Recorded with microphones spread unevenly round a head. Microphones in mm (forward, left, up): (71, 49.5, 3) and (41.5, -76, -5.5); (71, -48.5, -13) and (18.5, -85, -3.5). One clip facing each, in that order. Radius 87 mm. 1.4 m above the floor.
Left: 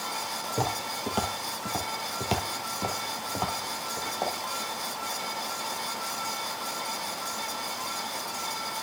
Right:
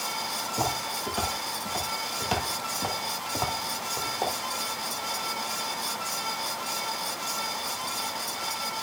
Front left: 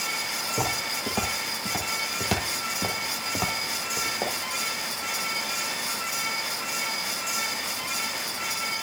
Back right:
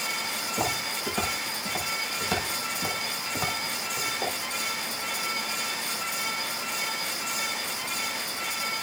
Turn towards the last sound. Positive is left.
turn(degrees=-20)